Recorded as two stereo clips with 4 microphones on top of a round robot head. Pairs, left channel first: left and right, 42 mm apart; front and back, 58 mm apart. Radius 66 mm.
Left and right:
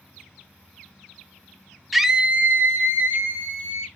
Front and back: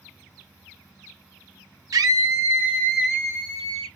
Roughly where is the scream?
Behind.